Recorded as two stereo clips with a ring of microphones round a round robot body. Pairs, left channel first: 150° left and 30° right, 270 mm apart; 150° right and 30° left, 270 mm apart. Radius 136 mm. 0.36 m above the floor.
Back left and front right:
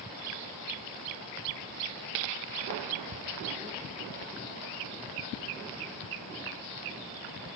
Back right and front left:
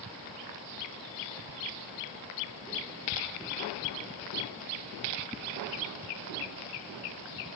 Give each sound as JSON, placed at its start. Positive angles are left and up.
{"t": 3.1, "sound": "ticking", "azimuth_deg": 10, "distance_m": 3.5}